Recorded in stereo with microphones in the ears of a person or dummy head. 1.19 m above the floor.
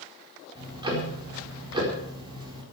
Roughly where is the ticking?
Right.